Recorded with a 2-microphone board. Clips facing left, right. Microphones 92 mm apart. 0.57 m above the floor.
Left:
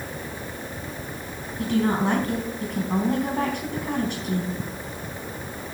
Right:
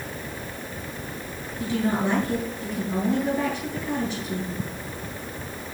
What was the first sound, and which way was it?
A woman speaking, 65° left (ahead or behind).